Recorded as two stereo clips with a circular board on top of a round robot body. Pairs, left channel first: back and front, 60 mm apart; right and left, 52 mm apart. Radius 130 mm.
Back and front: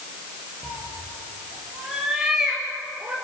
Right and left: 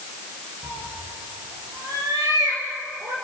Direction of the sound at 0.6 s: 90° left.